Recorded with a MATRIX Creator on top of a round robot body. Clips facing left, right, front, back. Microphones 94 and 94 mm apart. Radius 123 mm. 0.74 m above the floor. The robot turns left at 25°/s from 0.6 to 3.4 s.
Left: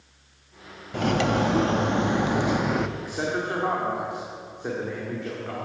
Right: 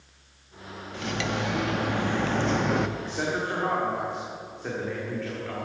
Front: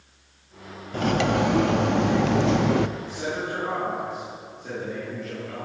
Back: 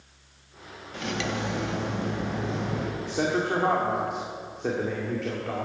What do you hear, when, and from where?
0.9 s cutlery clinking: 50° left, 0.6 m; by 2.9 s straight ahead, 0.6 m
3.0 s a man speaking: 175° left, 2 m; by 5.7 s 165° left, 2 m